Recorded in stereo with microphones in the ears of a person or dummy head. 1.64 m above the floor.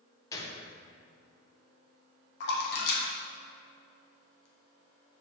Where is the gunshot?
20° left (ahead or behind), 1.0 m.